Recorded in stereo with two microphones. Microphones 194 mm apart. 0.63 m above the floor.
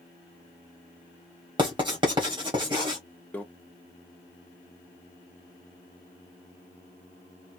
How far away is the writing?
About 1.7 m.